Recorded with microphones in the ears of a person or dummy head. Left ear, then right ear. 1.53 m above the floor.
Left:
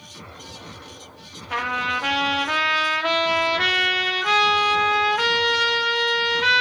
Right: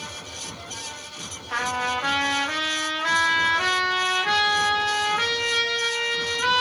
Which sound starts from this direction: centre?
A trumpet, at 1.5 s.